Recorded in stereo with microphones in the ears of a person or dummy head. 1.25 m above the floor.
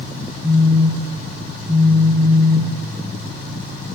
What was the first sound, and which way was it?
A phone buzzing, 30° right (ahead or behind).